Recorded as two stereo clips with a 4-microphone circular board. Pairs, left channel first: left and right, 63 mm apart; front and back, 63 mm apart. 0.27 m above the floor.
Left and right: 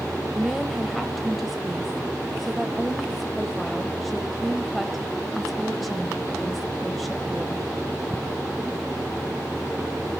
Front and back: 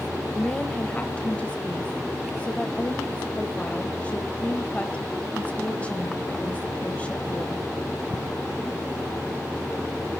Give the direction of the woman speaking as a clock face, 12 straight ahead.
12 o'clock.